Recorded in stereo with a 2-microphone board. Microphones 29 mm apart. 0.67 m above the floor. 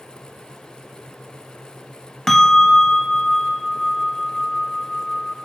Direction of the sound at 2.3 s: 15° left (ahead or behind).